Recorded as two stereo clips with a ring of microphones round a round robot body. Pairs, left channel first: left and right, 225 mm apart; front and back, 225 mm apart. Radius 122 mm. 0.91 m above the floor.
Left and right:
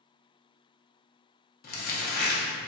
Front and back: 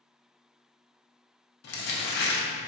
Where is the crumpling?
40° left, 0.6 m.